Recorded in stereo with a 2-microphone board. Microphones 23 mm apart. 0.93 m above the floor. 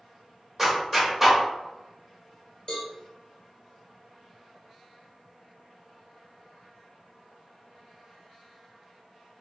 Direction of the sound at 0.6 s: 20° right (ahead or behind).